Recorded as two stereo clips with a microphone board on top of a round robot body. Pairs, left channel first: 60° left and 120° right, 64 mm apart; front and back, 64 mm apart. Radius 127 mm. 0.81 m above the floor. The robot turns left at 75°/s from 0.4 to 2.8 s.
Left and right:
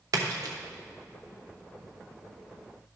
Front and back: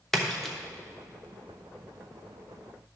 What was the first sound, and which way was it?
A splash, 85° right.